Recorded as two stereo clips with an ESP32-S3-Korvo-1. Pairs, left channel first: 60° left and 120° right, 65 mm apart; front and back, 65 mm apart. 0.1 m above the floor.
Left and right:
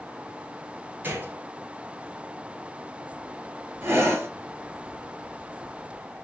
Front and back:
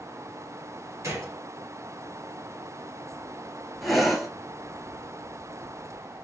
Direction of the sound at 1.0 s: 170° right.